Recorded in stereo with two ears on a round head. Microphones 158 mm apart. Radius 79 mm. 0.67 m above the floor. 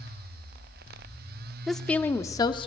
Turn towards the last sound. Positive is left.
turn(degrees=30)  # may be behind; listen again after turning